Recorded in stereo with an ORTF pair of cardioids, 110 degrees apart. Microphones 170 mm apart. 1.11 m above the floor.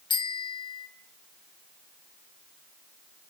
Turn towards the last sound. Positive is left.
turn(degrees=30)